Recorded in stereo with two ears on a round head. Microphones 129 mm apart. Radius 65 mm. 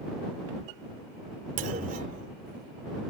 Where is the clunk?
60° right (ahead or behind).